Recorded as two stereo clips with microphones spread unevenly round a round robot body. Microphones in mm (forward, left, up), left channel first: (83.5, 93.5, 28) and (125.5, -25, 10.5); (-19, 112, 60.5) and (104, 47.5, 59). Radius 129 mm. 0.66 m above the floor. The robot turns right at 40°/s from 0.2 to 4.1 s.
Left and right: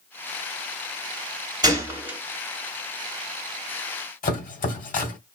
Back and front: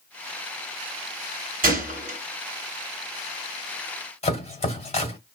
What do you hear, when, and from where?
1.6 s a gunshot: 10° right, 2.5 m; by 2.2 s 10° left, 2.5 m
4.2 s chopping: 110° left, 2.0 m